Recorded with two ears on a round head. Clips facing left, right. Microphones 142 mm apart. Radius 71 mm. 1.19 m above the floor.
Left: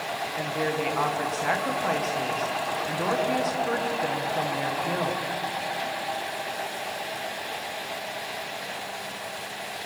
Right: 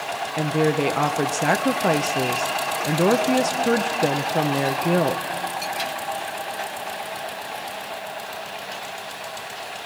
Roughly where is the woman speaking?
Right.